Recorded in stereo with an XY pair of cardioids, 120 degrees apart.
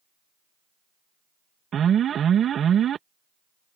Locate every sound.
1.7 s an alarm: 45° right